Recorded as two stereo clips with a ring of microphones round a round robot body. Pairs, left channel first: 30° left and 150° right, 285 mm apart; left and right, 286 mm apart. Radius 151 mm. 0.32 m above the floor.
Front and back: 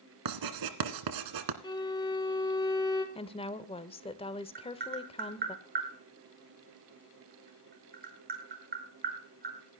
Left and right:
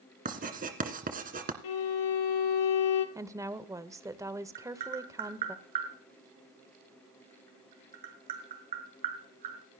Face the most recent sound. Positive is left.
turn(degrees=-90)